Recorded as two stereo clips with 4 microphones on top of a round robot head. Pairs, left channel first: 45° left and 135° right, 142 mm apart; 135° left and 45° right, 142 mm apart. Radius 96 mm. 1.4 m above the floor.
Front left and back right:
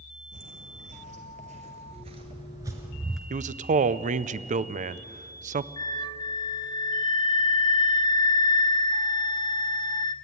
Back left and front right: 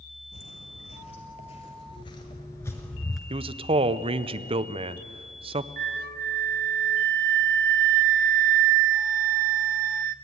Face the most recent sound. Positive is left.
turn(degrees=-20)